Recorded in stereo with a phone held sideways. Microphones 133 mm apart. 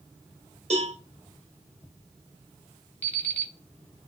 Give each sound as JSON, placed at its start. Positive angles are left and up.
{"t": 0.7, "sound": "a cowbell", "side_deg": -50, "distance_m": 1.2}
{"t": 3.0, "sound": "an alarm clock", "side_deg": 15, "distance_m": 1.1}